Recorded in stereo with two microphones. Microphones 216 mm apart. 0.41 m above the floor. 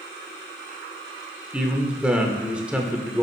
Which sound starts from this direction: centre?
A man speaking, at 1.5 s.